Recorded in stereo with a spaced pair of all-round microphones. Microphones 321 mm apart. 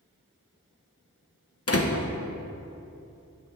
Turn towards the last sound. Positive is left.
turn(degrees=45)  # may be behind; listen again after turning